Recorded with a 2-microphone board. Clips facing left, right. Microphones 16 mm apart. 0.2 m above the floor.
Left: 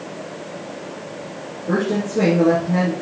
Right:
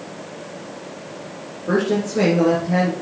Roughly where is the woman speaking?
Right.